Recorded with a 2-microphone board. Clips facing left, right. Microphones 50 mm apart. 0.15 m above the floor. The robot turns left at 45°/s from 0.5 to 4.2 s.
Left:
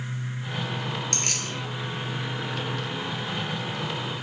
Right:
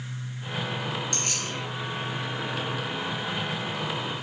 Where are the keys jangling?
60° left (ahead or behind), 2 m.